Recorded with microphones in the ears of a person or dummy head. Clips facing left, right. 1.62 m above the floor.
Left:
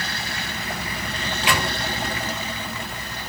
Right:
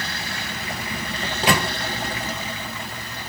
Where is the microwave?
40° right (ahead or behind), 0.9 m.